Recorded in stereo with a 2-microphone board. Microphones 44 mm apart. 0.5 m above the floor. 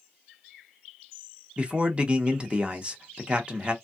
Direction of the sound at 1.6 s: 25° right (ahead or behind).